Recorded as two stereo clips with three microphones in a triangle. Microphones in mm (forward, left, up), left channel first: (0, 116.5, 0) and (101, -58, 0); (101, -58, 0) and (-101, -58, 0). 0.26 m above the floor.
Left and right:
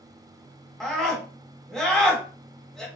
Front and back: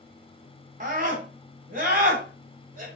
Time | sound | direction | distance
0.8 | a scream | 155° right | 1.7 m